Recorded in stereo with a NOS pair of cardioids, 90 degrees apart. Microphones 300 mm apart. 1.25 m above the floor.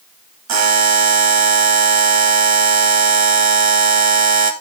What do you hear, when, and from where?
0.5 s a buzzer: 65° right, 2 m